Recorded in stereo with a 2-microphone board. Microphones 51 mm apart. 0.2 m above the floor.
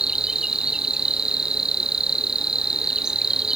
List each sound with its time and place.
0.0 s an insect: 10° right (ahead or behind)